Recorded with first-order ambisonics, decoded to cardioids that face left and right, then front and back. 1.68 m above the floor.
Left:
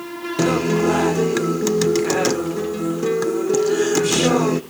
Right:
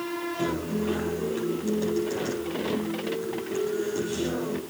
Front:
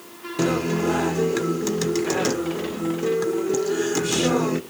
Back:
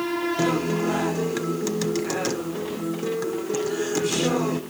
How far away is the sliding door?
I don't hear a sliding door.